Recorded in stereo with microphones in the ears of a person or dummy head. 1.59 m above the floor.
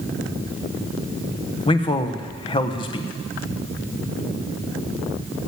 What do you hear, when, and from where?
1.7 s a man speaking: 20° left (ahead or behind), 1.1 m